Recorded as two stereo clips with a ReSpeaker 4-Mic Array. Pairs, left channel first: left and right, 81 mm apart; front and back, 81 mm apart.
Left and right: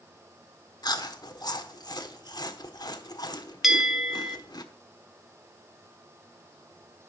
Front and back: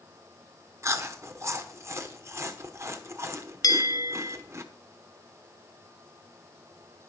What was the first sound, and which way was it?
Chewing, 125° left.